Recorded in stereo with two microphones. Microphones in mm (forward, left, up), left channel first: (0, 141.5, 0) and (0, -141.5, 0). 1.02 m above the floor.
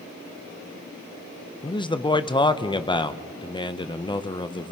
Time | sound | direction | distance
1.6 | a man speaking | 15° left (ahead or behind) | 0.5 m